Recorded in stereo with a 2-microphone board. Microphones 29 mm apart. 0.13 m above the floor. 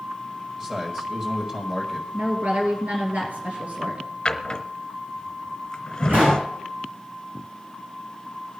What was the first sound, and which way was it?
A man speaking, 30° right (ahead or behind).